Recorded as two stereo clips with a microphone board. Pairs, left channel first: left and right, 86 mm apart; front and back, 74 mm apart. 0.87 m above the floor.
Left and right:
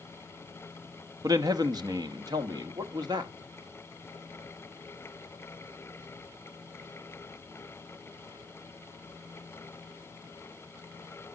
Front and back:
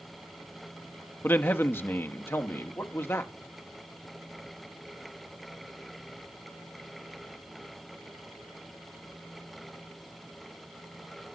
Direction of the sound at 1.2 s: 55° right.